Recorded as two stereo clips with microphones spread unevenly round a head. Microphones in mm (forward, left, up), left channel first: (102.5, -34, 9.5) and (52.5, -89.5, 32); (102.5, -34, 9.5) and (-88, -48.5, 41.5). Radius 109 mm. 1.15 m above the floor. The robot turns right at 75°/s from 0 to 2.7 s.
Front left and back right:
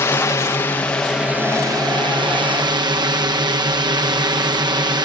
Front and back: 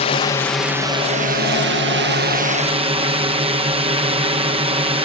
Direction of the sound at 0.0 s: 40° left.